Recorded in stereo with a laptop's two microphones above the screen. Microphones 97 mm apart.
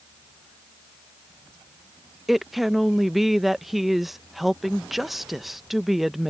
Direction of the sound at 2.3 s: Centre (ahead or behind).